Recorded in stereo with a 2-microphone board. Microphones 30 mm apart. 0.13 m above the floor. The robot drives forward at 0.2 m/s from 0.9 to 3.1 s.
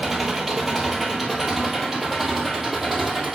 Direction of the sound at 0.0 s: 10° right (ahead or behind).